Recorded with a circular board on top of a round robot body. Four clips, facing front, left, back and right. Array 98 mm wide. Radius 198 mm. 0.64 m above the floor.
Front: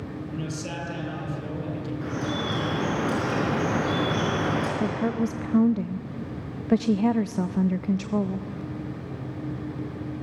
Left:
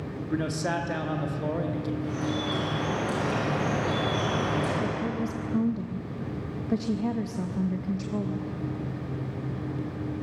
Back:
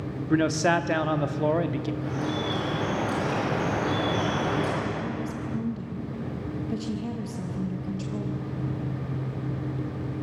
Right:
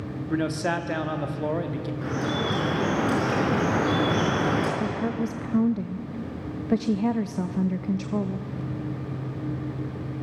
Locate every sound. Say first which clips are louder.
0.3 s a man speaking: right 3 dB, back 14 dB; 165° right, 1.6 m
2.0 s dripping: right 2 dB, even; 60° right, 5 m
4.8 s a woman speaking: right 2 dB, front 5 dB; 25° right, 0.8 m